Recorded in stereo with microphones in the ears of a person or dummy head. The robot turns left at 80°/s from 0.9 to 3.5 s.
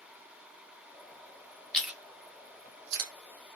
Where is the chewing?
5° left (ahead or behind), 1.2 m; by 3.1 s 70° right (ahead or behind), 1.2 m.